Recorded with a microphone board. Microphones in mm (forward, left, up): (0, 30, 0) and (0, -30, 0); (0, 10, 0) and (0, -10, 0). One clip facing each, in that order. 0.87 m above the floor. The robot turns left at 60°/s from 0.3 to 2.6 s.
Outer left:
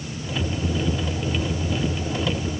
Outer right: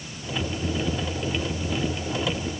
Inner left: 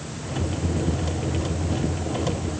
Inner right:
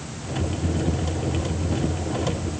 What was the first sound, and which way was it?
Only background noise.